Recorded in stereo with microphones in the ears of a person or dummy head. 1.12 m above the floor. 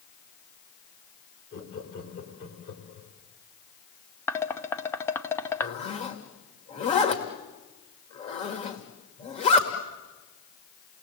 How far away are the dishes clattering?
About 0.8 m.